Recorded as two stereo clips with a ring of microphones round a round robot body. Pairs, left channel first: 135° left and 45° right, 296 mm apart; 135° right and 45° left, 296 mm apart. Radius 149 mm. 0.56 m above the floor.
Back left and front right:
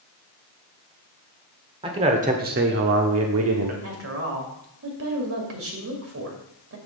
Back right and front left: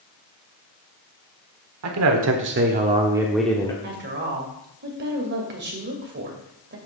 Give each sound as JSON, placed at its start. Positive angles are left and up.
{"t": 1.8, "sound": "a man speaking", "azimuth_deg": 25, "distance_m": 1.5}
{"t": 3.8, "sound": "a woman speaking", "azimuth_deg": -5, "distance_m": 2.5}